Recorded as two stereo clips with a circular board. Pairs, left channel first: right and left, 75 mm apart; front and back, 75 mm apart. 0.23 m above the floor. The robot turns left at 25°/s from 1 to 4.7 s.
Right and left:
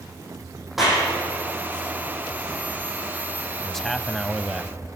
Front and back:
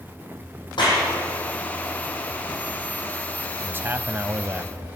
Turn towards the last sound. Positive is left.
turn(degrees=165)